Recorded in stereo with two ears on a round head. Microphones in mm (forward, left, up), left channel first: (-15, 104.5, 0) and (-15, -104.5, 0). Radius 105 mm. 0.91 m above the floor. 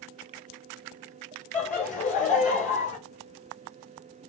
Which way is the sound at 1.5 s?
35° left (ahead or behind).